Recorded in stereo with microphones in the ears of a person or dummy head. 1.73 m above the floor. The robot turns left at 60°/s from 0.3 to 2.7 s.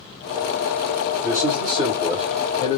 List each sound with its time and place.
1.2 s a man speaking: 120° right, 0.9 m; by 2.8 s 150° left, 0.9 m